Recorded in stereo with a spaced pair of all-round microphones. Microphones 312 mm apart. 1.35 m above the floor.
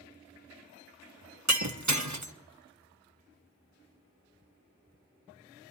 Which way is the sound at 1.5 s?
65° right (ahead or behind).